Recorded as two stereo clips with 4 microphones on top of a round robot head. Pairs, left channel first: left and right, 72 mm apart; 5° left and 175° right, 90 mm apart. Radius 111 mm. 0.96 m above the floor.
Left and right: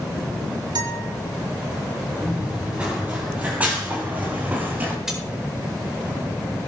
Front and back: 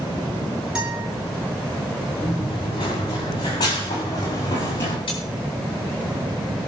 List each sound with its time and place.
0.8 s a guitar: 95° right, 5.5 m
2.2 s running footsteps: 20° right, 7.5 m; by 5.0 s 30° right, 4 m
5.1 s cutlery clinking: 10° right, 8 m